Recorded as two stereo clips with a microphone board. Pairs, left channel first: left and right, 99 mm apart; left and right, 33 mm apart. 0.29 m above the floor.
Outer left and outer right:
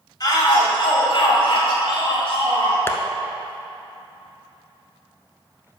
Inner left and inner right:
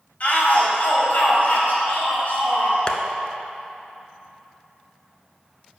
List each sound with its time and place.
0.2 s a shout: 40° left (ahead or behind), 1.7 m; by 2.8 s 65° left (ahead or behind), 3.5 m
2.9 s tapping: 25° left (ahead or behind), 0.7 m